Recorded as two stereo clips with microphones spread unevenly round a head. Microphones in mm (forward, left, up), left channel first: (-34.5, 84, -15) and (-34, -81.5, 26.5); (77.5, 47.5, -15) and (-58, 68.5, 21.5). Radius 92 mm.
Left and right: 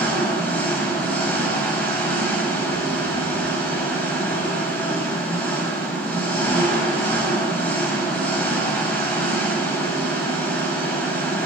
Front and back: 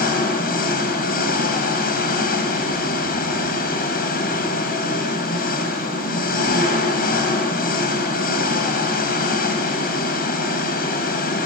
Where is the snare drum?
I don't hear a snare drum.